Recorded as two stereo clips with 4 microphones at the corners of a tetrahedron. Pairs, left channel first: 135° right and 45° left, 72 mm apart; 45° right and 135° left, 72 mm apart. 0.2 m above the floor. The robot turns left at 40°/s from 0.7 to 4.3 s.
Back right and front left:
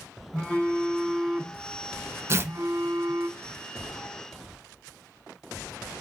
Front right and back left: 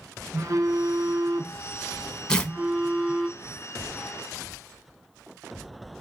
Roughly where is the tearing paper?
Ahead left.